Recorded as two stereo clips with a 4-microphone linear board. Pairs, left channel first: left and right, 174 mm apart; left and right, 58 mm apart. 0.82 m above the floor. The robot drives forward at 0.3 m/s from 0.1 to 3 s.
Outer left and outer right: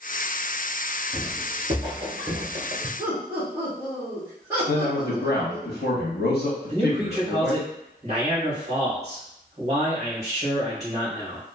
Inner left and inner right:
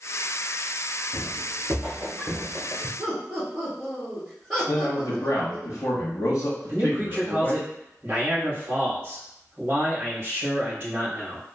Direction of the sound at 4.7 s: 65° left (ahead or behind).